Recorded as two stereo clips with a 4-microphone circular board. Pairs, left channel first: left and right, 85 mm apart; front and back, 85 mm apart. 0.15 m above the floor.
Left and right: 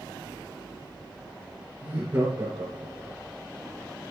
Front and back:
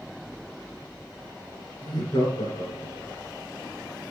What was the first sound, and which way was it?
Laughter, 40° right.